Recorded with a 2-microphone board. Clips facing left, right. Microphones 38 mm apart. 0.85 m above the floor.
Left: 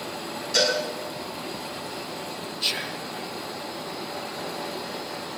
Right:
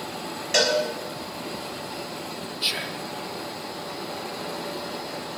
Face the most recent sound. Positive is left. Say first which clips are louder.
# right 1 dB
turn(degrees=-5)  # may be behind; listen again after turning